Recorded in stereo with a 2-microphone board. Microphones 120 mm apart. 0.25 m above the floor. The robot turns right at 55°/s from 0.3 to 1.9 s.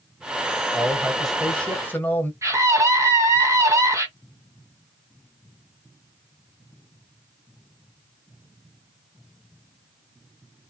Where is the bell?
I don't hear a bell.